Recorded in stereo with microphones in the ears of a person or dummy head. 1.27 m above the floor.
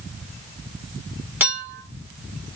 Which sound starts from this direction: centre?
A clink, at 1.4 s.